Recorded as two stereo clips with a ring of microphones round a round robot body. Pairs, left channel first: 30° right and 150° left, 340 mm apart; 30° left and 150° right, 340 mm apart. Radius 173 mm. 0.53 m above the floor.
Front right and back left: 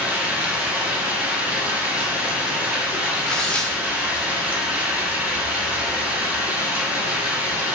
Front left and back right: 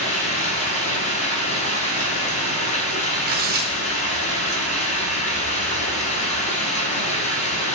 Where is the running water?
70° left, 0.8 m.